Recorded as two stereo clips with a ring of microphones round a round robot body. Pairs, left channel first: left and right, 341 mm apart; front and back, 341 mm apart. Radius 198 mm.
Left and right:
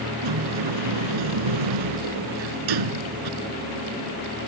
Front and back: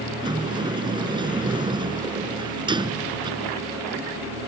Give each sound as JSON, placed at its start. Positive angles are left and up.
{"t": 0.2, "sound": "a sliding door", "azimuth_deg": -105}